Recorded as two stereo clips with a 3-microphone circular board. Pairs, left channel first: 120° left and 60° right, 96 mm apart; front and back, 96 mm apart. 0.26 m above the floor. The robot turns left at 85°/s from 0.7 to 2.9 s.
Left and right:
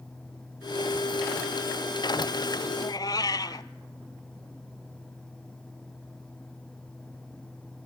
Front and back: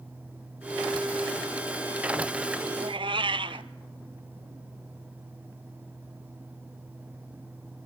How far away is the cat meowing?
About 0.7 m.